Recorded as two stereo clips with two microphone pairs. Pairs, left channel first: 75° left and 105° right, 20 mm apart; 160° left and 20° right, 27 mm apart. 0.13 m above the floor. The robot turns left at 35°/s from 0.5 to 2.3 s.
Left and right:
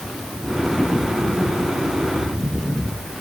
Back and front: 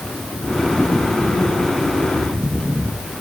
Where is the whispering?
No whispering in this recording.